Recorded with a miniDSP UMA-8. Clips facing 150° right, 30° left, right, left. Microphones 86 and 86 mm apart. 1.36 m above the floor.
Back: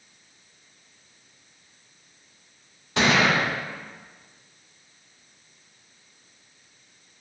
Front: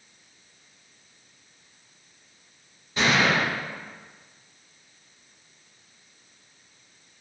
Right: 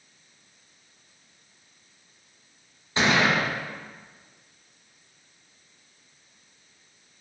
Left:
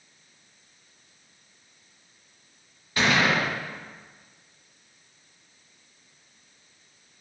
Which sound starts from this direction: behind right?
A gunshot, at 3.0 s.